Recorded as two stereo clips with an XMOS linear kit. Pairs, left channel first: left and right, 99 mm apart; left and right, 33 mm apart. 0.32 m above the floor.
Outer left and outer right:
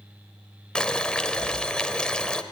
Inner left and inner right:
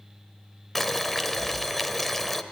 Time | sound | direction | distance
0.8 | boiling | 10° left (ahead or behind) | 0.8 m